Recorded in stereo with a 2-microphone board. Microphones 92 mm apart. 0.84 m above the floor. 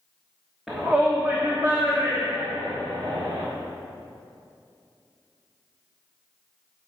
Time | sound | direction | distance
0.7 | a shout | 5° right (ahead or behind) | 1.2 m